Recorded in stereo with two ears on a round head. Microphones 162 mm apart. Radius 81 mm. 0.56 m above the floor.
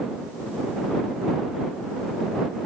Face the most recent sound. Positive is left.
No sound to turn to.